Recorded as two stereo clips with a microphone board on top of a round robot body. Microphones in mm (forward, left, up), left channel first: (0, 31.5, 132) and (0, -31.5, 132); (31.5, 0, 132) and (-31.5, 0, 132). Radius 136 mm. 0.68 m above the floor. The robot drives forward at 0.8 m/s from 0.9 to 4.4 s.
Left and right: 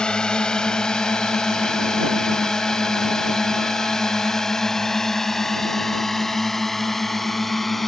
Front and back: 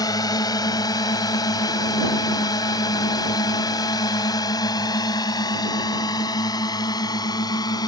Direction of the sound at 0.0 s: 15° left.